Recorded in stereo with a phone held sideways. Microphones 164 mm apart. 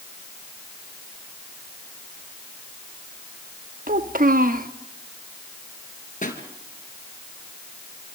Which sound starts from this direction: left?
A pop, at 6.2 s.